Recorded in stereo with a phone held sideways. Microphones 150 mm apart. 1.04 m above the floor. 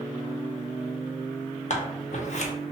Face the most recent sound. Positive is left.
turn(degrees=55)  # may be behind; listen again after turning